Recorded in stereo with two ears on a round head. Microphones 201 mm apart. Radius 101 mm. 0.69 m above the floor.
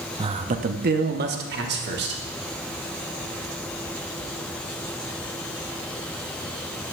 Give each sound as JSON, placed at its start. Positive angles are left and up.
{"t": 0.2, "sound": "a man speaking", "side_deg": -20, "distance_m": 0.5}